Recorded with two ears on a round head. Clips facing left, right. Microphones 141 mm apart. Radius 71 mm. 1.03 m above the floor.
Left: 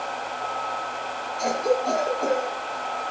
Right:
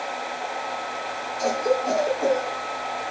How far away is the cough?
About 7 m.